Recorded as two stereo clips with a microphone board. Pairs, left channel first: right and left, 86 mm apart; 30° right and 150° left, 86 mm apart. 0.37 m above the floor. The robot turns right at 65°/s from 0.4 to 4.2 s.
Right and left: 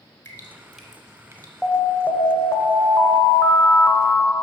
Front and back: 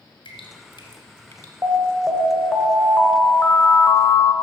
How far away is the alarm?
About 1.1 m.